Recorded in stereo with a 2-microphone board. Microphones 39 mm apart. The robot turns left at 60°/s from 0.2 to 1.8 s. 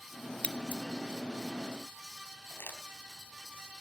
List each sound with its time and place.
0.4 s scissors: 30° left (ahead or behind), 0.9 m; by 0.8 s 50° left (ahead or behind), 0.9 m
2.5 s crumpling: 65° left (ahead or behind), 4 m